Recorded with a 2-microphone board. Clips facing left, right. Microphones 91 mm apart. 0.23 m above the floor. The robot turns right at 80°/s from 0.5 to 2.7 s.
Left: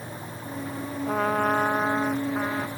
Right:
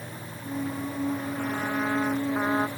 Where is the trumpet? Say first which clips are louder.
Left 10 dB; 85° left; by 2.7 s 145° right.